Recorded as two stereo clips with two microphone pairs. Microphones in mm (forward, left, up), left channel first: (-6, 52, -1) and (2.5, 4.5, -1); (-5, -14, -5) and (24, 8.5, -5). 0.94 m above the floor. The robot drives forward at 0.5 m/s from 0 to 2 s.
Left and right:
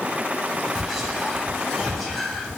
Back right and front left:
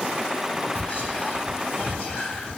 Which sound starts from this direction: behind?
Whispering, at 0.8 s.